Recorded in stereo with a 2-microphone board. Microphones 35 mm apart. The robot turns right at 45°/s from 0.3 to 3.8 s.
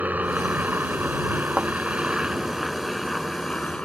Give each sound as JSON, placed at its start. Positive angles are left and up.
{"t": 0.0, "sound": "a helicopter", "azimuth_deg": -120}
{"t": 1.6, "sound": "a thud", "side_deg": -40}